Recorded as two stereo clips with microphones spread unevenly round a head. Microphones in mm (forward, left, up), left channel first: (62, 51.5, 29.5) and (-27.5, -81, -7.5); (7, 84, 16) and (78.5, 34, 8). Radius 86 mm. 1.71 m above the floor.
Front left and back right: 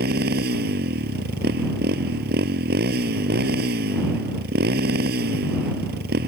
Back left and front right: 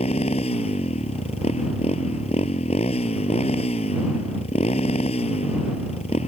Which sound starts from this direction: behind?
A motorcycle, at 0.0 s.